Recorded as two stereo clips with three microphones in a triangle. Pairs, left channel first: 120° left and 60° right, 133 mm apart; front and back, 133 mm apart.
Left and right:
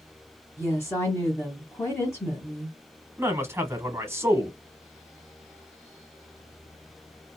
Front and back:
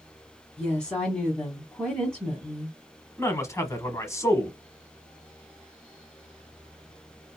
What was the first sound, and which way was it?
A woman speaking, 75° left.